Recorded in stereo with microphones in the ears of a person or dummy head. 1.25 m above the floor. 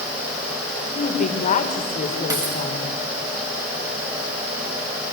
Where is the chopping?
I don't hear chopping.